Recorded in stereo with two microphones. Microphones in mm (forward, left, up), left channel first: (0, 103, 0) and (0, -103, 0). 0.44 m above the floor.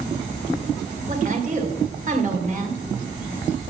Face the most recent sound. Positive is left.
turn(degrees=-40)  # may be behind; listen again after turning